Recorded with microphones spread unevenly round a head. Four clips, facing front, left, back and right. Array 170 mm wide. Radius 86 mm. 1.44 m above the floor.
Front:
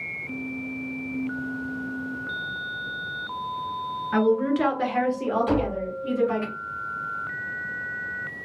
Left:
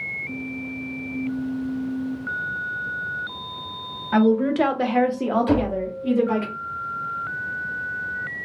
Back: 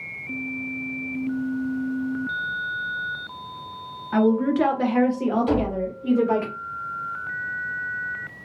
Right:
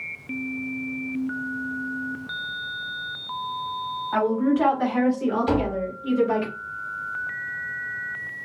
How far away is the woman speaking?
About 0.9 m.